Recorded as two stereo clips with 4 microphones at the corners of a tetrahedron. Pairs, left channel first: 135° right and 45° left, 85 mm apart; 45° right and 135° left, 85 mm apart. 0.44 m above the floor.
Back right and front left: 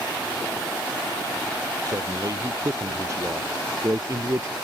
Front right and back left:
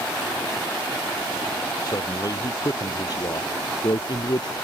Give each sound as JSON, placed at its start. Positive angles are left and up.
{"t": 1.9, "sound": "a man speaking", "azimuth_deg": 0}